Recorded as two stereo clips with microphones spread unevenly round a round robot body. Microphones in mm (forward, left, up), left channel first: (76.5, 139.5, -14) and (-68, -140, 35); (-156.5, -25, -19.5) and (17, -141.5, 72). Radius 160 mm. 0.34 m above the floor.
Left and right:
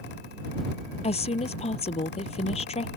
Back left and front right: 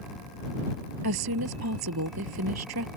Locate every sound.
1.0 s a woman speaking: 10° right